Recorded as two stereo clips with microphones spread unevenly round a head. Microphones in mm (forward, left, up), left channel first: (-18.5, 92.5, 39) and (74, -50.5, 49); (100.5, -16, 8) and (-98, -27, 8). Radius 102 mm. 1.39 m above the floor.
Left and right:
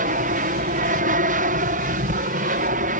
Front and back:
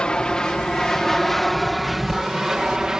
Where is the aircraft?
80° right; by 3.0 s 90° right.